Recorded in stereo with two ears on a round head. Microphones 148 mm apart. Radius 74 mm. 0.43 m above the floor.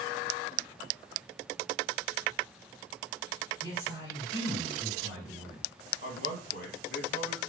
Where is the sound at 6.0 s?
55° left (ahead or behind), 3 m.